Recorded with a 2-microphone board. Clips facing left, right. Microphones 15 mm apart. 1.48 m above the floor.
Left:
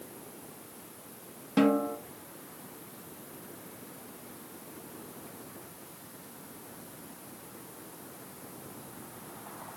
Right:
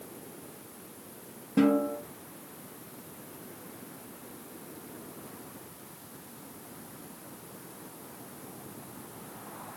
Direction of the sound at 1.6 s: 50° left (ahead or behind).